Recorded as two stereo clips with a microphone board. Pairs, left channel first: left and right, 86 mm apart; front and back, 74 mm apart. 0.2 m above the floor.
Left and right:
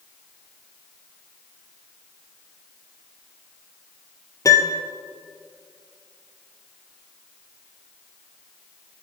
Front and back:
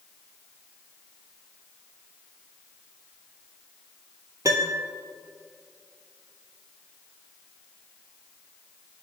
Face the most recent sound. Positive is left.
turn(degrees=140)